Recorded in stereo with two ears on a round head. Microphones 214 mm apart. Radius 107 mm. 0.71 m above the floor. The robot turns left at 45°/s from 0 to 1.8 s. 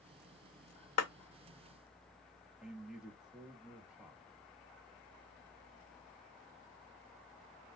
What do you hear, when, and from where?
1.0 s a clap: 75° left (ahead or behind), 1.7 m
2.6 s a man speaking: 5° right (ahead or behind), 1.0 m